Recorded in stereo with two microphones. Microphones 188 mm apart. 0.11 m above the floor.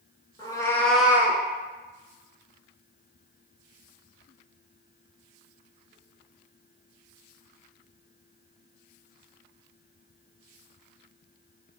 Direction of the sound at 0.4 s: 25° left (ahead or behind).